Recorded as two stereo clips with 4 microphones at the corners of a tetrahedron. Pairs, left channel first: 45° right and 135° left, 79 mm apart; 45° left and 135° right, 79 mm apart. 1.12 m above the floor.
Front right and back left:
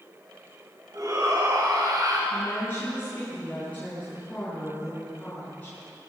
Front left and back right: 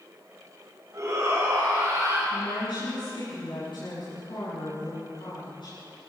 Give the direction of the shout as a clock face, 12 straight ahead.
6 o'clock.